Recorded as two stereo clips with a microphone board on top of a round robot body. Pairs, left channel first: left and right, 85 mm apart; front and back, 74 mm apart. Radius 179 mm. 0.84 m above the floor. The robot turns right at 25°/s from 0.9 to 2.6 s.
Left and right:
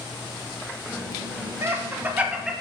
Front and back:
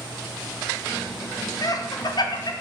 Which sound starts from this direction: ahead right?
Laughter, at 1.6 s.